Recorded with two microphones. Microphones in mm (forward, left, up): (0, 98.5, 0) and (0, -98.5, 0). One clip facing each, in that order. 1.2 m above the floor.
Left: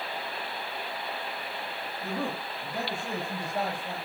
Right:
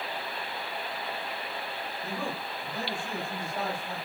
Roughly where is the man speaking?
Left.